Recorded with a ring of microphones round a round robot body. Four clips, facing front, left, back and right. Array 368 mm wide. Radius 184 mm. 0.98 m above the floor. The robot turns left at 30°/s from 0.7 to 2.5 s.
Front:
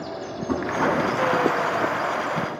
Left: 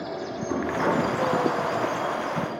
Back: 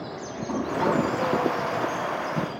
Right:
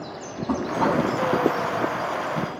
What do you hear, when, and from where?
0.5 s knocking: 85° right, 6 m; by 1.1 s 100° right, 6 m